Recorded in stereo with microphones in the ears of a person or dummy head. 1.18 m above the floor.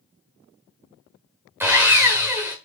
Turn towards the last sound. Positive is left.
turn(degrees=-10)  # may be behind; listen again after turning